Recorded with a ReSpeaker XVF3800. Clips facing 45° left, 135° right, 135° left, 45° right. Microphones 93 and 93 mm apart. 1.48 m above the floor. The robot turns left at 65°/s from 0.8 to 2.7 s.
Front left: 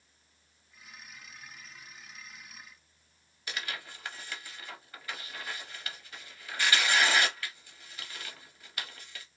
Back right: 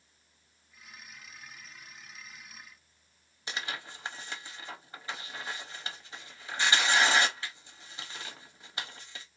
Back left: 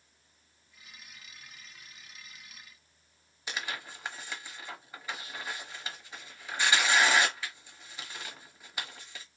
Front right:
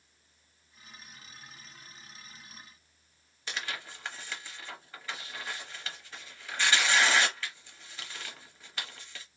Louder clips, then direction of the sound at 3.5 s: Back right 1 dB, back left 1 dB; 160° right.